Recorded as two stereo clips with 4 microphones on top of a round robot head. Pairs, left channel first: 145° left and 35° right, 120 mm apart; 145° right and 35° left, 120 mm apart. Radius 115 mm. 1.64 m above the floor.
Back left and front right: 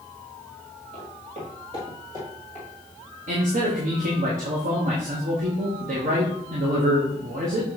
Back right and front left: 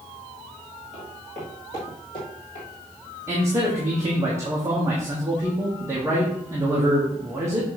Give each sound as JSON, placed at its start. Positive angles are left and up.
{"t": 0.9, "sound": "footsteps", "azimuth_deg": -50, "distance_m": 2.0}
{"t": 3.3, "sound": "a man speaking", "azimuth_deg": -30, "distance_m": 1.3}